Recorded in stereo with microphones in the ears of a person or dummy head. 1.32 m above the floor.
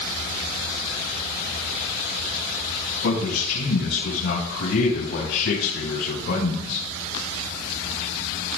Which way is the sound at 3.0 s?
75° left (ahead or behind).